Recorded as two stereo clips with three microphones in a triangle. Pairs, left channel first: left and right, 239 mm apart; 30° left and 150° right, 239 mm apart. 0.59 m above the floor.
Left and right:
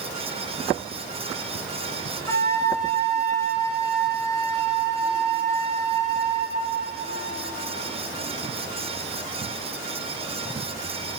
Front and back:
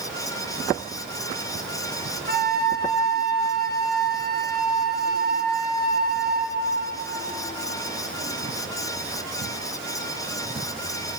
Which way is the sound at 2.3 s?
165° left.